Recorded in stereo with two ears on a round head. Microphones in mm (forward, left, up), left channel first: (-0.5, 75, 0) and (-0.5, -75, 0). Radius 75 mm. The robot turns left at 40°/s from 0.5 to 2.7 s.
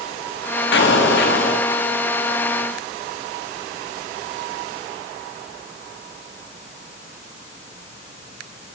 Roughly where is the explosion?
Left.